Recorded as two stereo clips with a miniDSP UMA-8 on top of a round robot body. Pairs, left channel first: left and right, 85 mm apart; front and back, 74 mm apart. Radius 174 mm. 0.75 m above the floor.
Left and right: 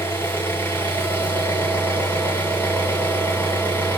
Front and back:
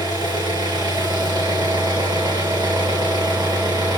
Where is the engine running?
155° left, 5 m.